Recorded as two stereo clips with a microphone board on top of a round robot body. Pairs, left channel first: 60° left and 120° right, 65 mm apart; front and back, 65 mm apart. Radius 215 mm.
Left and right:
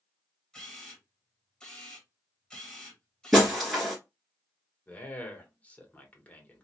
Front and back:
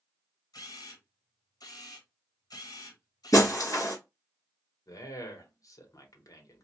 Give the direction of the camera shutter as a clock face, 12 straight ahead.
1 o'clock.